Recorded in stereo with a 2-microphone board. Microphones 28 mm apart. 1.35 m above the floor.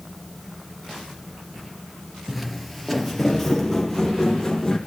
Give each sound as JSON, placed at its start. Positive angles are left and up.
{"t": 2.3, "sound": "footsteps", "side_deg": -5, "distance_m": 1.6}